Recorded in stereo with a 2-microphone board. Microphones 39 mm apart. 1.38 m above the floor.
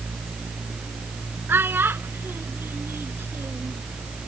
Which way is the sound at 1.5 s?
65° right (ahead or behind).